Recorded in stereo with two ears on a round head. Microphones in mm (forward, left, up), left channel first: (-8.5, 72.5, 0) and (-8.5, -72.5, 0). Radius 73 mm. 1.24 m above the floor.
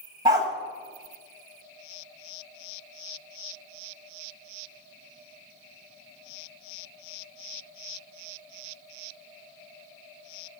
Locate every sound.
0.2 s a dog barking: 25° right (ahead or behind), 1.5 m